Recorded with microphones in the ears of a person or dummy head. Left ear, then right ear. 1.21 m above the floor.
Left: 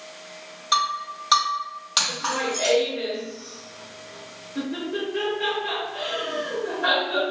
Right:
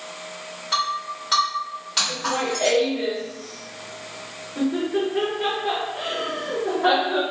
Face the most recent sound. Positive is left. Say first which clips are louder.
# right 1 dB
turn(degrees=50)  # may be behind; listen again after turning